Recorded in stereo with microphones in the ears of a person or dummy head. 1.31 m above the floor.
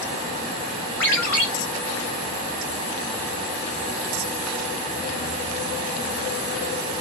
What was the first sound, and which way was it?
A ringtone, 5° left (ahead or behind).